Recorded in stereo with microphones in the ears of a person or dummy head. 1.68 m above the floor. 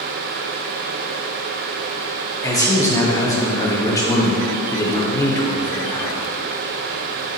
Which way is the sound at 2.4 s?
15° left (ahead or behind).